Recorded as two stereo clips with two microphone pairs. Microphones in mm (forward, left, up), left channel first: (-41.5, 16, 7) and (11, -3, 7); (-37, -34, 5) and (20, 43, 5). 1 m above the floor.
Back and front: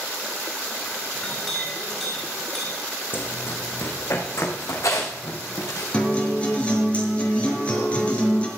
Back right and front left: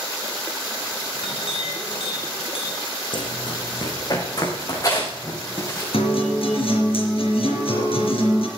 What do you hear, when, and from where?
1.1 s a clink: 115° right, 5 m
3.1 s running footsteps: 155° right, 3 m; by 5.8 s 175° left, 5 m
5.9 s a guitar: 135° right, 4.5 m